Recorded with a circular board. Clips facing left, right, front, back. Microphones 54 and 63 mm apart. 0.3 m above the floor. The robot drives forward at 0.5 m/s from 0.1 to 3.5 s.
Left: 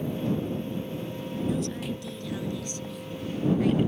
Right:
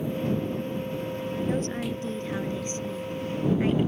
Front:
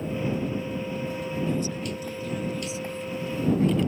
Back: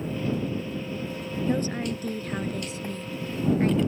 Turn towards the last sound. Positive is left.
turn(degrees=-145)